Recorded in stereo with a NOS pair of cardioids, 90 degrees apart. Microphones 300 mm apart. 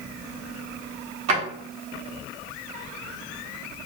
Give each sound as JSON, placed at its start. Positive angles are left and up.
{"t": 1.3, "sound": "a drawer", "azimuth_deg": -65, "distance_m": 1.4}